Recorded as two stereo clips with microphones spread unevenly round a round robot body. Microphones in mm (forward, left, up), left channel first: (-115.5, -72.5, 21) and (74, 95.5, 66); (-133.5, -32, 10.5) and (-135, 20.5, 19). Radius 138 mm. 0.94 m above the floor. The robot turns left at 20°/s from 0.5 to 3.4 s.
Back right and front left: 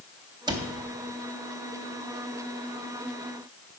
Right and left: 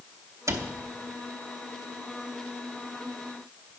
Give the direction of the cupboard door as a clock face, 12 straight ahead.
8 o'clock.